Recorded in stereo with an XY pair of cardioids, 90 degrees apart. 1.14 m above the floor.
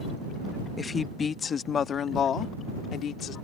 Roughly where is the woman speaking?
Ahead left.